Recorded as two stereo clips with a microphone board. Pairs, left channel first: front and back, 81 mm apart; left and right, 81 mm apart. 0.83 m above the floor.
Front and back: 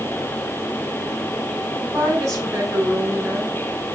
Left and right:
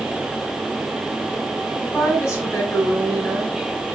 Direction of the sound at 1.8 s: 145° left.